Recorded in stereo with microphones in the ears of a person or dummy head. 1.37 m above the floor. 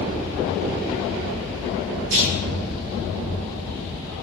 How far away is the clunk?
About 10 m.